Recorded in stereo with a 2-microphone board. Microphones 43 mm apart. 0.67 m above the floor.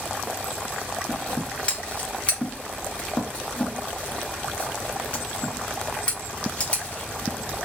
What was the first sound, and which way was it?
Scissors, 30° left (ahead or behind).